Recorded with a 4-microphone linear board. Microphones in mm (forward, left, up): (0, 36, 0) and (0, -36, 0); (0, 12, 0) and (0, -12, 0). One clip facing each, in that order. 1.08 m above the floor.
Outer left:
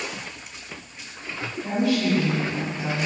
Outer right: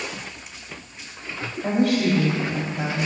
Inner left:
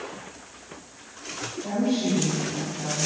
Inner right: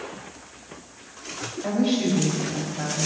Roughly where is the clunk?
I don't hear a clunk.